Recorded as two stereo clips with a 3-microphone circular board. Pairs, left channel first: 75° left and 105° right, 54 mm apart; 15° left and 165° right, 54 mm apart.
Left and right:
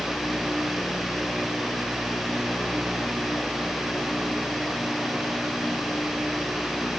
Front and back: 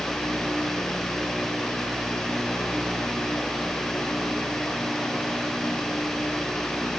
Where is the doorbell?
I don't hear a doorbell.